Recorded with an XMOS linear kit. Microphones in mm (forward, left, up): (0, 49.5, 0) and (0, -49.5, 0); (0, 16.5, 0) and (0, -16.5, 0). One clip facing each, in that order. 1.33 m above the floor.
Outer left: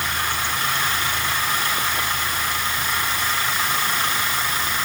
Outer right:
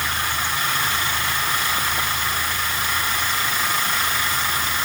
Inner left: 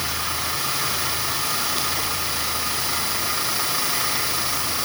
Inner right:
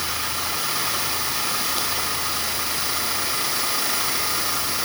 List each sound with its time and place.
Only background noise.